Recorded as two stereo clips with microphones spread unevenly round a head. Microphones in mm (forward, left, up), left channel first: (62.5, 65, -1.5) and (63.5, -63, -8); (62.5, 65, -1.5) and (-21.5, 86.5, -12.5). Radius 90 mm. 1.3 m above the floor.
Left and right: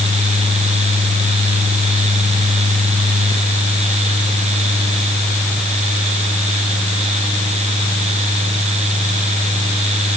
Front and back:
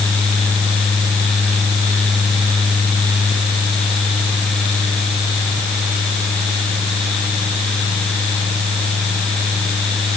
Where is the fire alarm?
I don't hear a fire alarm.